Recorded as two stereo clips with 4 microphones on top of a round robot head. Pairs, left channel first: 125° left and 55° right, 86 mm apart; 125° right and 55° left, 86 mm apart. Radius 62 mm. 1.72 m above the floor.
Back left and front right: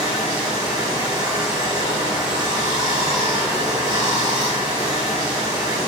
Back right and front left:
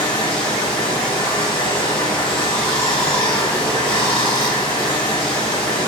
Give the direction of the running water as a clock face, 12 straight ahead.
3 o'clock.